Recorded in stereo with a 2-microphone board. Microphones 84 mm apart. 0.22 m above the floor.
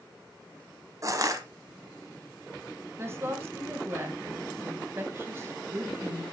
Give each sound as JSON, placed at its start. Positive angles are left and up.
{"t": 1.0, "sound": "crushing", "side_deg": -40, "distance_m": 0.9}
{"t": 3.0, "sound": "a woman speaking", "side_deg": -30, "distance_m": 1.3}